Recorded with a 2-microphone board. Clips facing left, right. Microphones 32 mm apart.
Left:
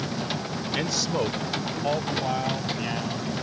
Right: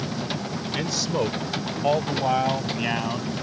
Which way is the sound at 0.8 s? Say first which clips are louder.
Right 1 dB; 10° left (ahead or behind).